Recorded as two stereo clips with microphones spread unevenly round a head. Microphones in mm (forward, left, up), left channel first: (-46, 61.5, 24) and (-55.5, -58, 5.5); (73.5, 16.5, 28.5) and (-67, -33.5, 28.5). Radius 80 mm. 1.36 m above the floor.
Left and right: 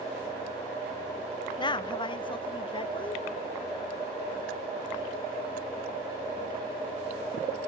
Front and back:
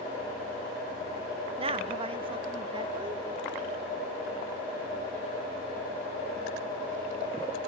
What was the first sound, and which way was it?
A woman speaking, 140° left.